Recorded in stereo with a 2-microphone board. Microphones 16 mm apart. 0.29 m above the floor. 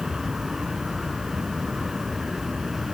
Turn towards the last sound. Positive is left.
turn(degrees=-40)  # may be behind; listen again after turning